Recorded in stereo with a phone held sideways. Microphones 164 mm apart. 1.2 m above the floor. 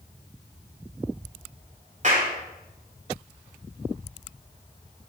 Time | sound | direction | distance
2.0 | a clap | 50° right (ahead or behind) | 4 m